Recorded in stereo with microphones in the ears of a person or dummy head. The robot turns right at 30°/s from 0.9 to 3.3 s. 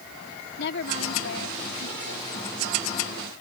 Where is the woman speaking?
65° left; by 3.1 s 130° left.